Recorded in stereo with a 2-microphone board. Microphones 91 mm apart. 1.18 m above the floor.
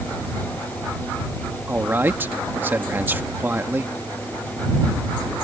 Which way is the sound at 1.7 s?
20° right (ahead or behind).